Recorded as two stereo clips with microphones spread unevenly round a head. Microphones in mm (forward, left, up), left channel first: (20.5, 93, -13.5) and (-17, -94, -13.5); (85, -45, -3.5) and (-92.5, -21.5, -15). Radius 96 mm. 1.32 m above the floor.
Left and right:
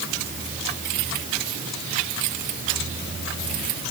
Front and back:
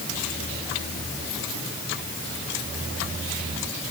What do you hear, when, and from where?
Only background noise.